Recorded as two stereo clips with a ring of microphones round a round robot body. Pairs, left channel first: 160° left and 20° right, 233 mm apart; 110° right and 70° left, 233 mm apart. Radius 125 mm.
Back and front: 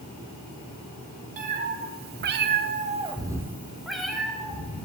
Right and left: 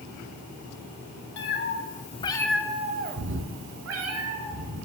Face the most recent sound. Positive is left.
turn(degrees=75)